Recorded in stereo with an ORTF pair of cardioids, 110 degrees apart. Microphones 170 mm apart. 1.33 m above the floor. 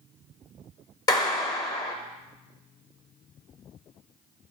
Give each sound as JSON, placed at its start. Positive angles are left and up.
{"t": 1.1, "sound": "a clap", "azimuth_deg": 25, "distance_m": 0.6}